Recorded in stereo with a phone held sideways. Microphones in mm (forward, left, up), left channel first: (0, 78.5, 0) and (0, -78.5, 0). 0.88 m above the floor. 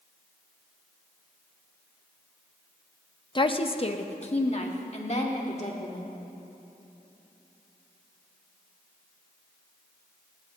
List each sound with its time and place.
3.4 s a woman speaking: 30° left (ahead or behind), 0.7 m; by 6.1 s 45° left (ahead or behind), 3 m